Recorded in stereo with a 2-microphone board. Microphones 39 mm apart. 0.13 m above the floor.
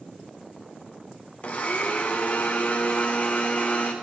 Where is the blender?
35° left (ahead or behind), 1.5 m.